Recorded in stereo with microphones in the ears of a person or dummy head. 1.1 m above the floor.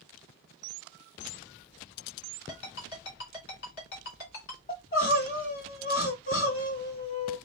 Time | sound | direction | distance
2.5 | a ringtone | 55° left (ahead or behind) | 3 m
4.7 | crying | 45° left (ahead or behind) | 2 m